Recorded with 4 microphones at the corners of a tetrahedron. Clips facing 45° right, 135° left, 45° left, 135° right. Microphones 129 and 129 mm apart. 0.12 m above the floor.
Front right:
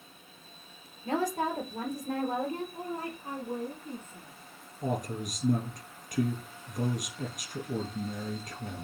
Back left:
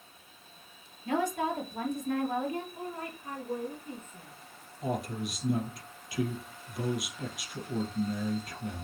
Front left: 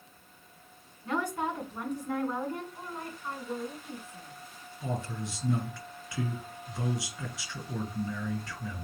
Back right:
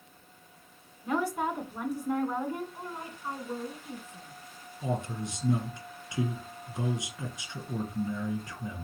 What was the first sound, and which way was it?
A woman speaking, 55° right.